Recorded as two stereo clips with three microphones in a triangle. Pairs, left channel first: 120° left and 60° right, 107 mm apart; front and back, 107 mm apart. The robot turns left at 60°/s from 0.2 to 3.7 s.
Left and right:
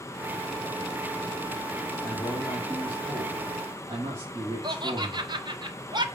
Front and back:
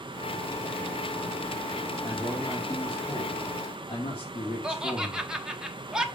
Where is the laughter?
100° right, 1.2 m.